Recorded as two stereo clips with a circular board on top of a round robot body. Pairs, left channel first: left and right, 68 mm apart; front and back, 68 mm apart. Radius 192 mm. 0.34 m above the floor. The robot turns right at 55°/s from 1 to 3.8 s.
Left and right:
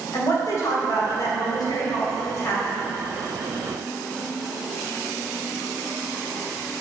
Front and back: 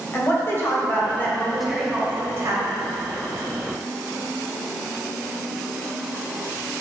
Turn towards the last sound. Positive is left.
turn(degrees=-150)